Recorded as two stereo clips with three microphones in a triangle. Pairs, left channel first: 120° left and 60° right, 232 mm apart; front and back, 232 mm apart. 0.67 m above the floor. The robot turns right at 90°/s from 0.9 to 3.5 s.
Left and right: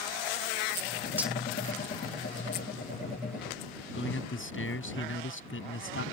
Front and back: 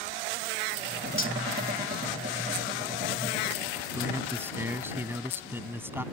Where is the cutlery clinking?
20° left; by 1.4 s 35° left.